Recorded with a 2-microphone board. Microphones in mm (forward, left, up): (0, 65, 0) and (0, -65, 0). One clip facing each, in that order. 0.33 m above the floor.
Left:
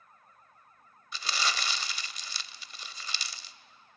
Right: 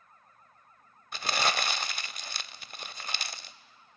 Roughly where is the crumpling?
Right.